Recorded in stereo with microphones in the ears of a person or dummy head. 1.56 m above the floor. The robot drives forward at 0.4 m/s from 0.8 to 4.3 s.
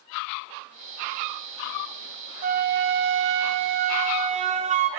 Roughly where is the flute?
Right.